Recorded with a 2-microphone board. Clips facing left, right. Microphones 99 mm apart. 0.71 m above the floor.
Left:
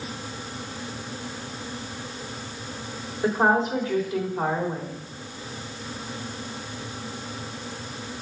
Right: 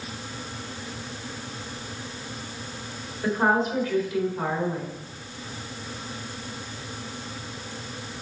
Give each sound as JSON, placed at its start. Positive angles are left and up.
{"t": 3.2, "sound": "a woman speaking", "side_deg": 25, "distance_m": 2.0}